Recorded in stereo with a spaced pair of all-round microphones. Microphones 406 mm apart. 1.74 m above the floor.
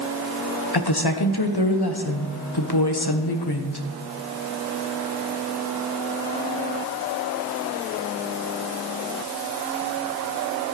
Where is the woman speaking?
70° left (ahead or behind), 1.5 m.